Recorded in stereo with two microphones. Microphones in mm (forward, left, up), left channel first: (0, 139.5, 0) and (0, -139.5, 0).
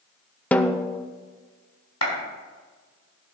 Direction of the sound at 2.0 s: 65° left (ahead or behind).